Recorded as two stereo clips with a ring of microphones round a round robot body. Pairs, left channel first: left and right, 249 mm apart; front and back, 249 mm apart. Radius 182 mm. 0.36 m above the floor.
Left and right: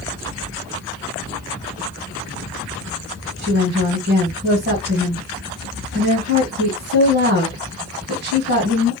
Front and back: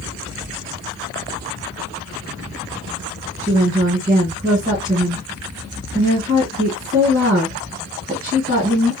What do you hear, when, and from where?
3.4 s a woman speaking: 130° right, 1.8 m